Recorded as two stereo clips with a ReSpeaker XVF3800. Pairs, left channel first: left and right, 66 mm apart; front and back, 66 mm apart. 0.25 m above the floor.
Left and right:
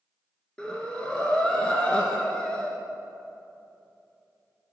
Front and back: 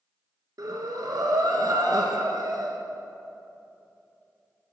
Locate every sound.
0.6 s breathing: 165° left, 1.1 m